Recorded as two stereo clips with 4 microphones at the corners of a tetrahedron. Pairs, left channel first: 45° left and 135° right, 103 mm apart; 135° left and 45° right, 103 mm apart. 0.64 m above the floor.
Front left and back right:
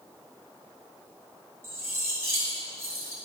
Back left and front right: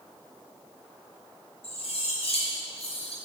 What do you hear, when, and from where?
1.6 s cutlery clinking: 160° left, 4 m